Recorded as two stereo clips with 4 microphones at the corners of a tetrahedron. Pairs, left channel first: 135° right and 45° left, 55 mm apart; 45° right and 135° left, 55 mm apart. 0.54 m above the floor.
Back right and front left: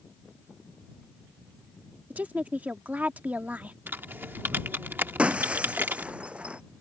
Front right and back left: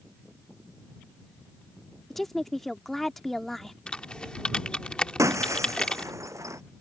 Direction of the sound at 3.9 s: 15° left.